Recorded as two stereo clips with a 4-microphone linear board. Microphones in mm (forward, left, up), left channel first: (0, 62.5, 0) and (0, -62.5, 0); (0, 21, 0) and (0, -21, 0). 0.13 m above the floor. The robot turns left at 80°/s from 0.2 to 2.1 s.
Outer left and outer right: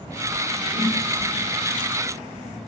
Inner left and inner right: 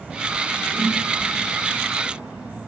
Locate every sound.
0.7 s a whoosh: 15° left (ahead or behind), 1.9 m; by 1.0 s 35° left (ahead or behind), 1.9 m